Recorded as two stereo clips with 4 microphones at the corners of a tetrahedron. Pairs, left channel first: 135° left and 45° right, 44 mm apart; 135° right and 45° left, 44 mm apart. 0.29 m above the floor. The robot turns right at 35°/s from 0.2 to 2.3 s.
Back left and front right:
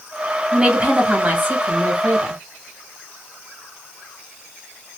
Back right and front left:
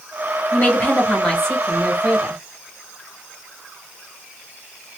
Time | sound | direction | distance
0.5 | a woman speaking | 100° right | 1.4 m